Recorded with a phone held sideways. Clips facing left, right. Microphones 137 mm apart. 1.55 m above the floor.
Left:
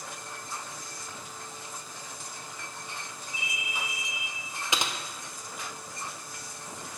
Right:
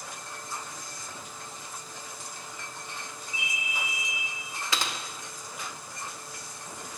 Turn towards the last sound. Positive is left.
turn(degrees=20)  # may be behind; listen again after turning